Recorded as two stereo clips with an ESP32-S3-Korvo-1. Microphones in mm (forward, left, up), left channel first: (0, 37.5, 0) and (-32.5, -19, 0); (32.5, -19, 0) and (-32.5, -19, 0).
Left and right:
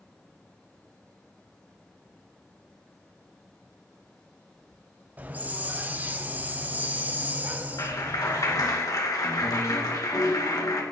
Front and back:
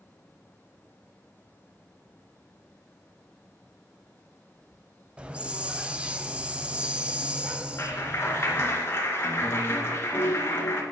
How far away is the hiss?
About 0.8 m.